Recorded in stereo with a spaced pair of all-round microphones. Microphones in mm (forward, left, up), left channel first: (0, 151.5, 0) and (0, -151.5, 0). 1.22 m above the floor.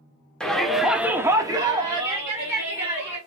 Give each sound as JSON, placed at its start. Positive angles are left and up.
{"t": 0.4, "sound": "a shout", "side_deg": 0, "distance_m": 0.9}